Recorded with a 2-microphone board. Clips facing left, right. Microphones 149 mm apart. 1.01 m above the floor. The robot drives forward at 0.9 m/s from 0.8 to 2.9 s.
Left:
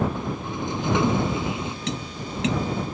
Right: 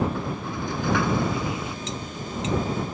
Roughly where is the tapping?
Left.